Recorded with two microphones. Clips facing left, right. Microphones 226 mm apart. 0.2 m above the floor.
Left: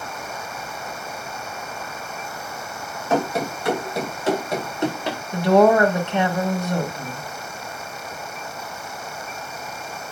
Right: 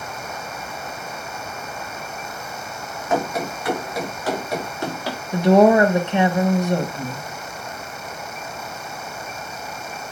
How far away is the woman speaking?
About 1.0 m.